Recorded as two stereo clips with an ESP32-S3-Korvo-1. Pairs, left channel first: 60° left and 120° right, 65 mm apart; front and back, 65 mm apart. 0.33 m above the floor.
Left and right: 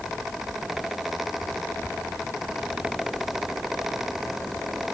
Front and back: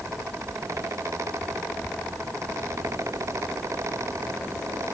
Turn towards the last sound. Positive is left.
No sound to turn to.